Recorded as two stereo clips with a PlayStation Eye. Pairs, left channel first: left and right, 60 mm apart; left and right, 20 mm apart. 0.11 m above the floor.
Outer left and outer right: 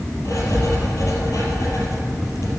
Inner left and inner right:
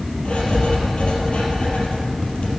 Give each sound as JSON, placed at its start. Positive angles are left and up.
{"t": 0.2, "sound": "writing", "side_deg": 60, "distance_m": 3.0}